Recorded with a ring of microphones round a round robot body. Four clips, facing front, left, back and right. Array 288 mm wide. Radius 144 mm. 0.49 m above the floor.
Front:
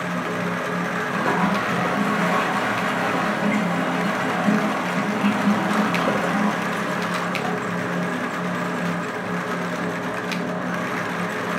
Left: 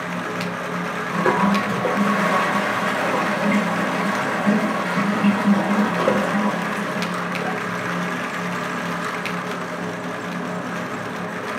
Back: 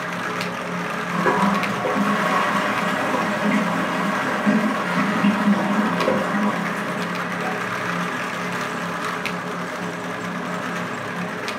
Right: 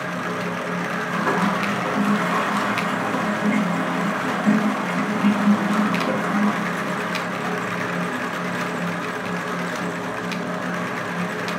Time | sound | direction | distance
1.1 | a toilet flushing | 110° left | 2 m